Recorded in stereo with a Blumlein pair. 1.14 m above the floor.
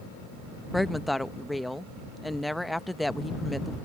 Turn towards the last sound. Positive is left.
turn(degrees=0)